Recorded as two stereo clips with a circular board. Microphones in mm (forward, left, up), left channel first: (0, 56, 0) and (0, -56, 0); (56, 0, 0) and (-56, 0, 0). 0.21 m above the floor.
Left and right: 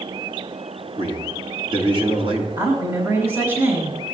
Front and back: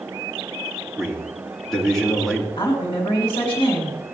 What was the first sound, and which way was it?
A man speaking, 85° right.